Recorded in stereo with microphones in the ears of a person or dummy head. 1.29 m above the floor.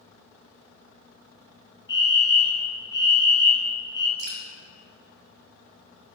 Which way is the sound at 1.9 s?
20° left (ahead or behind).